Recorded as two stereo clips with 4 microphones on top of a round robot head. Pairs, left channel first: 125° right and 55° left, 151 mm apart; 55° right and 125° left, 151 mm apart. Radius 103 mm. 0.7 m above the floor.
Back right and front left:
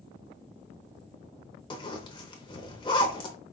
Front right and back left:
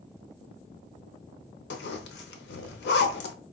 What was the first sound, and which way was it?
A zipper, 65° right.